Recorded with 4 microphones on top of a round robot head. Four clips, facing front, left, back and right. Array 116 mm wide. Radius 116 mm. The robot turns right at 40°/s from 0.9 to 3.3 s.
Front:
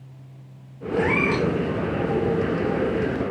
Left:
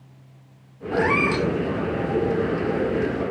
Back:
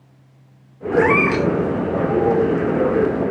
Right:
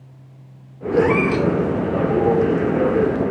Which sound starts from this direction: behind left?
A cat meowing, at 0.9 s.